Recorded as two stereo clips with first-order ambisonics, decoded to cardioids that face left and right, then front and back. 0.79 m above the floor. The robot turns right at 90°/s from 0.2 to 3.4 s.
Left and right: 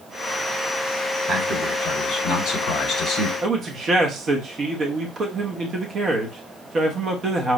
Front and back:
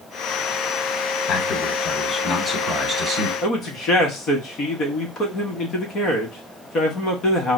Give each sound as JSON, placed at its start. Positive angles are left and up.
{"t": 1.3, "sound": "a man speaking", "azimuth_deg": -10, "distance_m": 1.2}
{"t": 3.4, "sound": "a man speaking", "azimuth_deg": -35, "distance_m": 1.1}